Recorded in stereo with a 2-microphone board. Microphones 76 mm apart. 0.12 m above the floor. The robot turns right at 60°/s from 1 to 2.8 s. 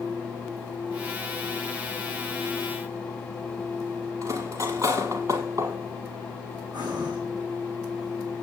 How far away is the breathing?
About 3.5 m.